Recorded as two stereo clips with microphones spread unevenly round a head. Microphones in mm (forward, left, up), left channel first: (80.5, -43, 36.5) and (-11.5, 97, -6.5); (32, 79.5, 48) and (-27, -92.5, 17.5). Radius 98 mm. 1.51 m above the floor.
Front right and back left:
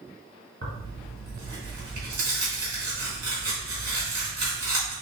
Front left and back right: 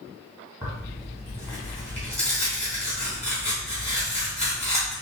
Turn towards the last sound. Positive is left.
turn(degrees=170)